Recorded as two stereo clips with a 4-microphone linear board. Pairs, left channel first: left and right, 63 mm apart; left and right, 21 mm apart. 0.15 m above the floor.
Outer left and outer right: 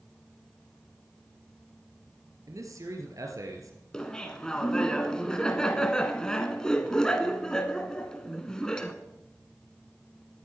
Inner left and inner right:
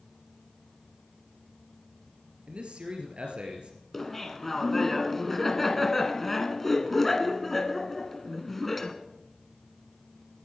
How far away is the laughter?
About 1.2 m.